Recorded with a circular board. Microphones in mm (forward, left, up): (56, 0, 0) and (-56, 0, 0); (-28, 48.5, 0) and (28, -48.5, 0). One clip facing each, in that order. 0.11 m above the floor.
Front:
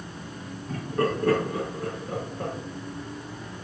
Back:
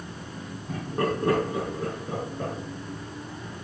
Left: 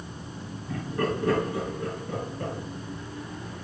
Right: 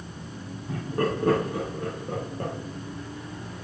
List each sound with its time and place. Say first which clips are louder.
0.7 s laughter: front 1 dB, right 1 dB; 110° right, 5 m; by 2.5 s 95° right, 4.5 m